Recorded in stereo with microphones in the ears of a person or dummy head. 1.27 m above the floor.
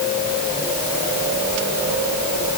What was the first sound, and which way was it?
Only background noise.